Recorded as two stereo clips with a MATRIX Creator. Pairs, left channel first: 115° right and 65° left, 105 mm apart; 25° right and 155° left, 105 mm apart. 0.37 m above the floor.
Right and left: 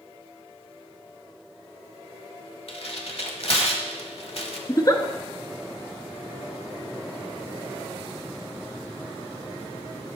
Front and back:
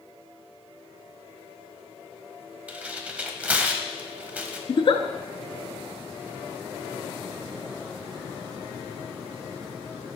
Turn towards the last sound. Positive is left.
turn(degrees=-60)